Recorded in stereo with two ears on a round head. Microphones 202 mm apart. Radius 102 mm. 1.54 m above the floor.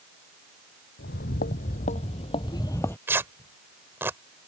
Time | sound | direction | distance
1.0 | footsteps | 45° left (ahead or behind) | ?
3.1 | tearing paper | 10° right (ahead or behind) | ?